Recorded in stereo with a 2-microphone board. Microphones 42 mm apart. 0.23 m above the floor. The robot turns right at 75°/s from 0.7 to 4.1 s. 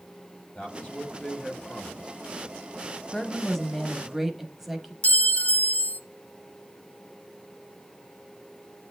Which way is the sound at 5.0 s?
40° left (ahead or behind).